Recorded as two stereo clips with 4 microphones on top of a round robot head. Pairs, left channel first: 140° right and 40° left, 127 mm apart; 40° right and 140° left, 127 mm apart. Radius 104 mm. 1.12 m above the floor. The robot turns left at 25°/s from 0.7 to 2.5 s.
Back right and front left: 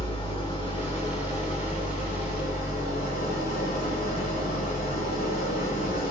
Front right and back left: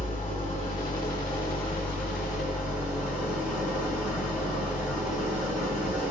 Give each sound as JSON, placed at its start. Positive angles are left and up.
{"t": 0.0, "sound": "an engine running", "azimuth_deg": -90, "distance_m": 2.5}